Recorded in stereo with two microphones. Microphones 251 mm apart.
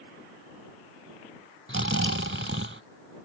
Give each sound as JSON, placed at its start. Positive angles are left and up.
{"t": 1.7, "sound": "snoring", "side_deg": -50}